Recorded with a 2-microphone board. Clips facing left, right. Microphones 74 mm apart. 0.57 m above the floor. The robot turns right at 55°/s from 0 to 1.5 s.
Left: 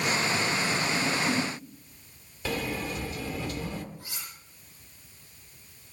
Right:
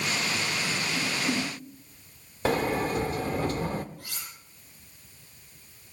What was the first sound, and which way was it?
A whoosh, 45° right (ahead or behind).